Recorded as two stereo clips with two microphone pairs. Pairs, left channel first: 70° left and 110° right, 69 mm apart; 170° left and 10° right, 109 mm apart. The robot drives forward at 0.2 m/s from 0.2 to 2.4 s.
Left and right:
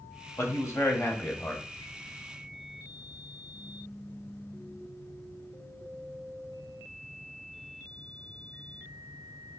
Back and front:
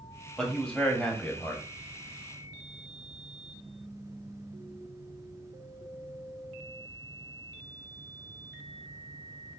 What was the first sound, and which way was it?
A man speaking, 90° left.